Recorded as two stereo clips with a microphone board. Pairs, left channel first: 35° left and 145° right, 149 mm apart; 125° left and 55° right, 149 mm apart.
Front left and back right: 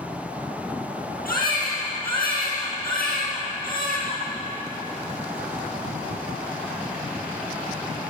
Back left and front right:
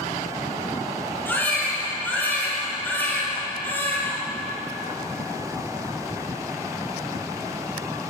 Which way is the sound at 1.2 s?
45° left.